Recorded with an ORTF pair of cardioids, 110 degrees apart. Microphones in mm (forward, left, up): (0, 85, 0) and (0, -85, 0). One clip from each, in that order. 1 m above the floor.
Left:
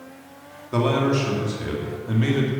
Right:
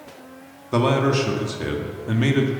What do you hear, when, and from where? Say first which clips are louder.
0.7 s a man speaking: right 2 dB; 25° right, 2 m